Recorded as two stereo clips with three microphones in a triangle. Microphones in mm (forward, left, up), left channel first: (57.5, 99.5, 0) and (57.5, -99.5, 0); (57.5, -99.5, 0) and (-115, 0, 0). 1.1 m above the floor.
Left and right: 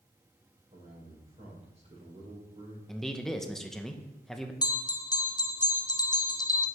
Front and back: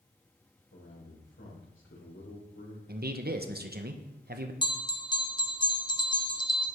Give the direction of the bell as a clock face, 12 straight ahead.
11 o'clock.